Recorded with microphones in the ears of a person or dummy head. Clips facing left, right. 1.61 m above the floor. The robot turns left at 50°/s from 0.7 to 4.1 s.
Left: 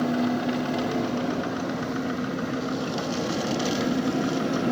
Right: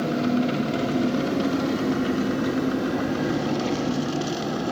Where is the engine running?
40° right, 3 m; by 4.7 s 150° left, 3 m.